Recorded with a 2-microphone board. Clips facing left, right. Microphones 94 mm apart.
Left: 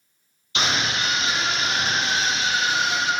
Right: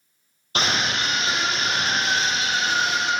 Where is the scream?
45° right (ahead or behind), 3.5 m.